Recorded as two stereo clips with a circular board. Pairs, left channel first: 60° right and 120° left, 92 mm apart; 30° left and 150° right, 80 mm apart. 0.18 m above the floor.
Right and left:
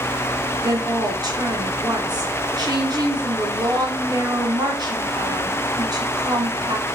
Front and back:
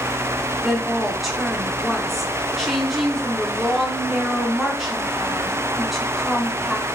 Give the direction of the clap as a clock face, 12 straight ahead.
No clap in this recording.